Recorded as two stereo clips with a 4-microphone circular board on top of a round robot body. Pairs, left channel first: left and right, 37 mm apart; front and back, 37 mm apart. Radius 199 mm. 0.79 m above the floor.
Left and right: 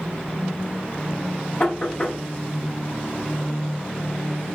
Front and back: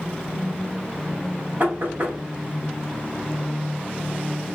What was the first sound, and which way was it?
Knocking, 150° left.